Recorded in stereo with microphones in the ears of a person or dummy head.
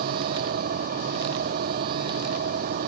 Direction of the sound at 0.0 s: 45° right (ahead or behind).